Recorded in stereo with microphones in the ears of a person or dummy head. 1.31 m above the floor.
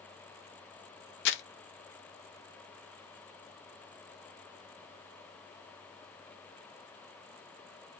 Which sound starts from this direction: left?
Crumpling, at 1.2 s.